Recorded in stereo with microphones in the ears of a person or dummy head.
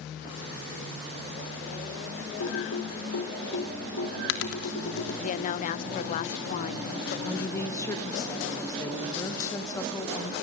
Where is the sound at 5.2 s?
35° left (ahead or behind), 0.6 m.